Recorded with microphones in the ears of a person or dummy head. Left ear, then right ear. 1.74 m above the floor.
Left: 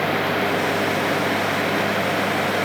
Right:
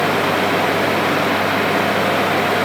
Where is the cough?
I don't hear a cough.